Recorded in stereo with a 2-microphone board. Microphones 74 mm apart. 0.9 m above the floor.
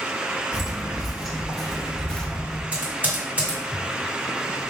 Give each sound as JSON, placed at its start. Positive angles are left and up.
{"t": 0.5, "sound": "footsteps", "side_deg": -5, "distance_m": 1.4}
{"t": 2.7, "sound": "typing on a keyboard", "side_deg": -25, "distance_m": 1.7}